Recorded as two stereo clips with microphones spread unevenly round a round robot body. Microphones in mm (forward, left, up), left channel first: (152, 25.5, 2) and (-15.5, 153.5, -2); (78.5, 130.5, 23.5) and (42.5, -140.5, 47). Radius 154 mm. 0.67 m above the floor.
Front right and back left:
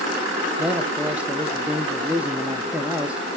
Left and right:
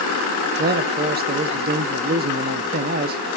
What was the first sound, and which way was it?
A man speaking, 140° right.